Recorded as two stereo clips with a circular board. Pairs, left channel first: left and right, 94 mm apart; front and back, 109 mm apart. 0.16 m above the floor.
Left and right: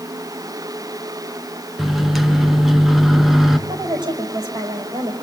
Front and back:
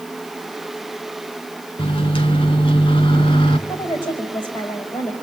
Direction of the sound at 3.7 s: 45° right.